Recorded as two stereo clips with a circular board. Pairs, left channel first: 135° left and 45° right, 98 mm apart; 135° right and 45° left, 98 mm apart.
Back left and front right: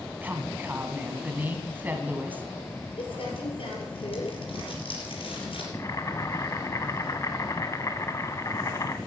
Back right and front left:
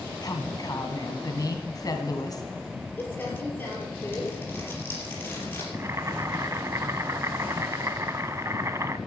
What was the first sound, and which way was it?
A woman speaking, 110° right.